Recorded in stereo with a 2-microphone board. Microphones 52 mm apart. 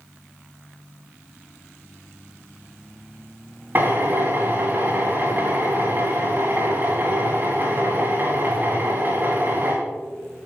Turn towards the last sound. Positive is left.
turn(degrees=-40)  # may be behind; listen again after turning